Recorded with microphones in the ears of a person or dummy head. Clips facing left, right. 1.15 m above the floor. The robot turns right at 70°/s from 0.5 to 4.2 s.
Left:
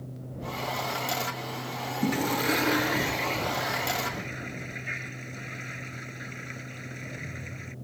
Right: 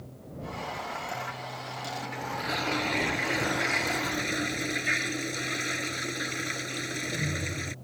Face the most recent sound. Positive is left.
turn(degrees=-110)